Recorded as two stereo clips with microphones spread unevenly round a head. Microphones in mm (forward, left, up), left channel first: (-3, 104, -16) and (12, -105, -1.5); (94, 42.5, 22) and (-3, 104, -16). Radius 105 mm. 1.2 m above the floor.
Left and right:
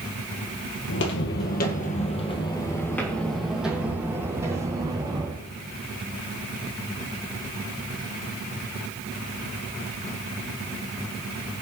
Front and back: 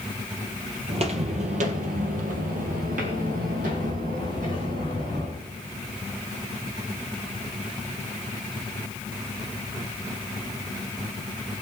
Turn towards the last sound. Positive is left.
turn(degrees=-155)